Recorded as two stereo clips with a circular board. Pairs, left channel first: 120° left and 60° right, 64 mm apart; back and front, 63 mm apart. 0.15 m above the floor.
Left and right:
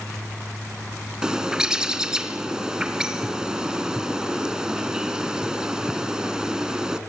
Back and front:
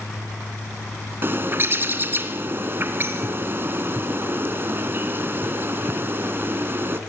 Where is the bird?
10° left, 2.0 m.